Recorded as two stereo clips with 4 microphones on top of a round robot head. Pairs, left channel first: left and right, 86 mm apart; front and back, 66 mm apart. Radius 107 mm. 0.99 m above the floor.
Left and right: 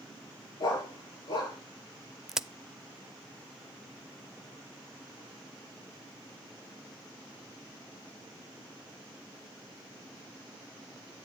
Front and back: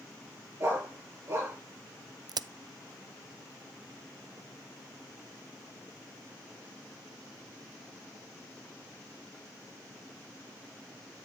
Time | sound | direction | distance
0.6 | a dog barking | 120° left | 9 m
2.3 | a crack | 175° right | 0.6 m